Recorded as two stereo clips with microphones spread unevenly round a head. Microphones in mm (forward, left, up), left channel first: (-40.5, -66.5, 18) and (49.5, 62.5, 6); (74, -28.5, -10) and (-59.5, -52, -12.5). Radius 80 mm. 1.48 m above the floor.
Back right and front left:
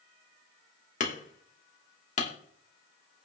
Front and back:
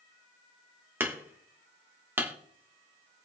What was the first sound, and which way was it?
Hammering, 95° right.